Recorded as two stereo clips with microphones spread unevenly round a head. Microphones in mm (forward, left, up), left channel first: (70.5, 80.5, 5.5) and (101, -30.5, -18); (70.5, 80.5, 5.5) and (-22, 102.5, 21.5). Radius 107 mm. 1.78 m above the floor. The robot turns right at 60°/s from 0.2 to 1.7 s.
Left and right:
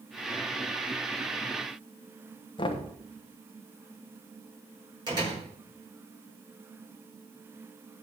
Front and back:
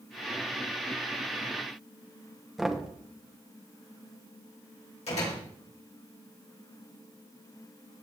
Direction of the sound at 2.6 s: 85° left.